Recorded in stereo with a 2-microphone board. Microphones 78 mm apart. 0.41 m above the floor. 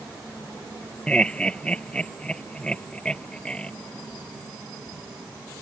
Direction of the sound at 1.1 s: 10° left (ahead or behind).